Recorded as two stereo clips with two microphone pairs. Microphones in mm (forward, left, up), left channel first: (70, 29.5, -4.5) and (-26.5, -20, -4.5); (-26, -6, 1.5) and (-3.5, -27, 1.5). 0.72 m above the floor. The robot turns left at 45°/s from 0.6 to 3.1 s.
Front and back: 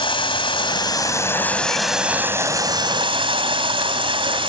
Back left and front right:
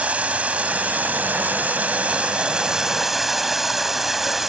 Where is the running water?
5° right, 2 m; by 4.5 s 120° right, 2 m.